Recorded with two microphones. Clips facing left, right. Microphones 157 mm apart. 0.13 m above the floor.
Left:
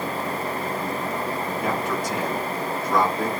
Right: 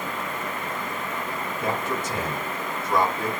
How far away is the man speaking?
About 1.3 m.